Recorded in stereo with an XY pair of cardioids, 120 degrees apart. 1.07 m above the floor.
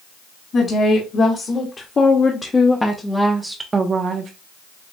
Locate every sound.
0.5 s a woman speaking: 45° left, 1.8 m; by 4.3 s 75° right, 0.7 m